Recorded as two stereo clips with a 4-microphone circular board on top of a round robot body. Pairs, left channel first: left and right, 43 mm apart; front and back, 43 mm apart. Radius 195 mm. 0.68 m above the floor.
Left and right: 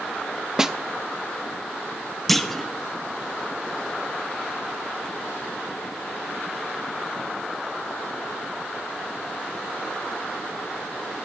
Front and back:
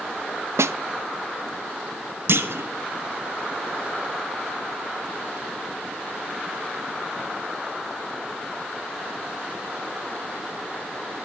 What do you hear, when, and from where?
0.6 s a snare drum: 165° right, 0.5 m
2.3 s a clunk: 175° left, 1.2 m